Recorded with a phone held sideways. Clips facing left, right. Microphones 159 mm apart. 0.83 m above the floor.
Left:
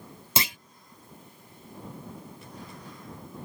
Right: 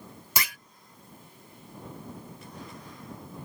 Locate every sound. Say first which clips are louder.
0.4 s a clunk: left 3 dB; 25° left (ahead or behind)